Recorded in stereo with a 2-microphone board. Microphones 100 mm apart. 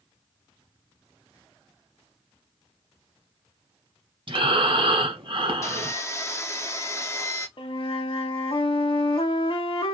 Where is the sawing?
30° left (ahead or behind), 0.7 m.